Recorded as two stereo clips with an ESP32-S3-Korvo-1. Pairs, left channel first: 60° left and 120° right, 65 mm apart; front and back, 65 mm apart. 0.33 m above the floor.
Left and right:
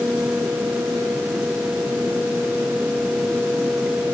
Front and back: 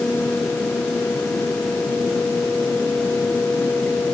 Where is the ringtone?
I don't hear a ringtone.